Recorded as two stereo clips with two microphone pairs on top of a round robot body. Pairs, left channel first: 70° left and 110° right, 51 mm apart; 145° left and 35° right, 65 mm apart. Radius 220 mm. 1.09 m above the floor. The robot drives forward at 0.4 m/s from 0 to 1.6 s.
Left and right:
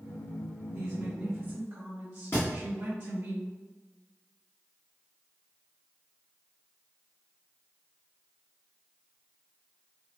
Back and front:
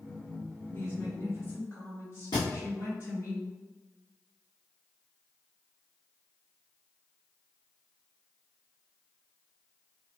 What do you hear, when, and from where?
0.7 s a woman speaking: 150° right, 1.6 m; by 3.3 s 155° right, 1.9 m
2.3 s a thud: 115° left, 0.8 m